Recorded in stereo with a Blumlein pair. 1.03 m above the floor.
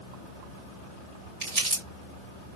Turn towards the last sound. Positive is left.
turn(degrees=-40)